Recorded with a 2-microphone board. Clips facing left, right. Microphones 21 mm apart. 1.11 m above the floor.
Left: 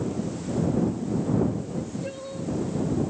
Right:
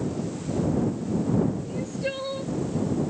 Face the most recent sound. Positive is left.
turn(degrees=-55)  # may be behind; listen again after turning